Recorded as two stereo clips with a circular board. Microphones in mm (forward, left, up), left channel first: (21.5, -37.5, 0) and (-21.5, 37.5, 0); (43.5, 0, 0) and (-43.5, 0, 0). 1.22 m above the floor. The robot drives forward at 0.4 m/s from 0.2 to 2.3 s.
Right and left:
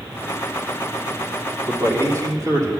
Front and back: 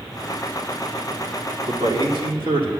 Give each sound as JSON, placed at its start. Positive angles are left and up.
{"t": 1.7, "sound": "a man speaking", "azimuth_deg": 170, "distance_m": 3.0}